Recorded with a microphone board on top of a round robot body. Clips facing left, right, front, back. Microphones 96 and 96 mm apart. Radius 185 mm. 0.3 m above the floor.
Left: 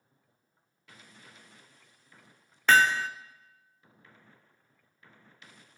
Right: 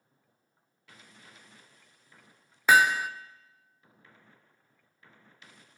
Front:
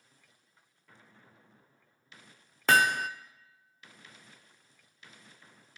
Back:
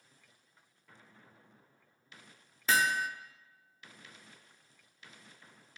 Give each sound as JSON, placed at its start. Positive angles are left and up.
{"t": 2.7, "sound": "hammering", "azimuth_deg": -10, "distance_m": 0.6}